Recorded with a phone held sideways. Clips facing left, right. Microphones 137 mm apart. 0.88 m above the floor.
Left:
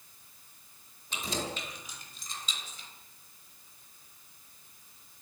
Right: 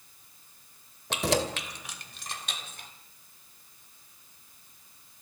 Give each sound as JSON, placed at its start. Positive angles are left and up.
{"t": 1.1, "sound": "keys jangling", "side_deg": -80, "distance_m": 2.0}